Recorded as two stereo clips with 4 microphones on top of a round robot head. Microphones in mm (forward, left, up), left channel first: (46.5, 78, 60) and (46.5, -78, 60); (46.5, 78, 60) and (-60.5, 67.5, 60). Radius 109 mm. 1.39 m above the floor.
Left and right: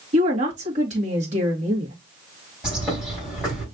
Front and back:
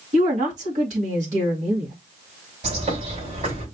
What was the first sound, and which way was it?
A woman speaking, 145° right.